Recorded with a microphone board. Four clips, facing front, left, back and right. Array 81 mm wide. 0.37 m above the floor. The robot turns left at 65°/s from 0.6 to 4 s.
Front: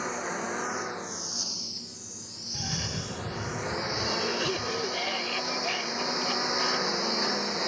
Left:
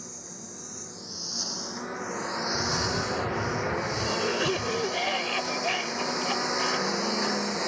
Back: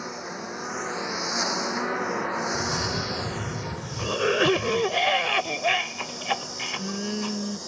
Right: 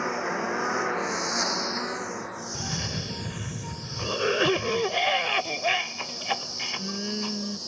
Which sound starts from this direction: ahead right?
A cough, at 2.5 s.